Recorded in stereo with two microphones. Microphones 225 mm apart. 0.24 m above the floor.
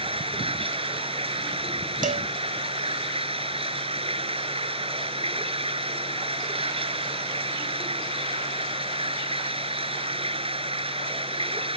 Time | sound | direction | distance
0.0 | running water | 25° right (ahead or behind) | ?
2.0 | a cowbell | 40° right (ahead or behind) | ?